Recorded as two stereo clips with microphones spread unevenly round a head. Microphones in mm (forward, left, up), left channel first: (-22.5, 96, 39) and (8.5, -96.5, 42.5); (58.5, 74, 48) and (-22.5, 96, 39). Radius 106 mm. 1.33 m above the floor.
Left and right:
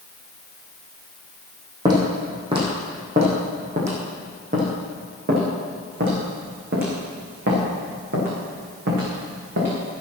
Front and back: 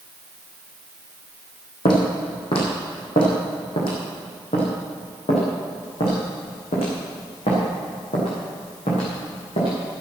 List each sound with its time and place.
1.9 s footsteps: 10° right, 3.5 m; by 9.7 s 45° right, 7 m